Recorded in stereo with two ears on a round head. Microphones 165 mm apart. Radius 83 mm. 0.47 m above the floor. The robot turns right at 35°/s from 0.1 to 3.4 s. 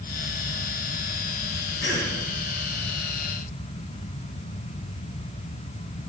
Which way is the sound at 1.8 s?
65° left (ahead or behind).